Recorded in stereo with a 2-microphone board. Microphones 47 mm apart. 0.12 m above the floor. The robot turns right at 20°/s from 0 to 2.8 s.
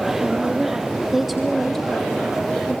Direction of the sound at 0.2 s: 25° right.